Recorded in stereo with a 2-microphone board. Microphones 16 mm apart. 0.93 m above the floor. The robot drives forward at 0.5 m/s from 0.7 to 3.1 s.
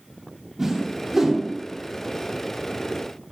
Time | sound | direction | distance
0.6 | a whoosh | 25° right (ahead or behind) | 2.5 m